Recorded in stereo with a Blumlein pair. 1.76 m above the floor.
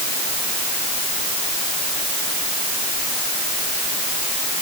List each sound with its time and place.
Only background noise.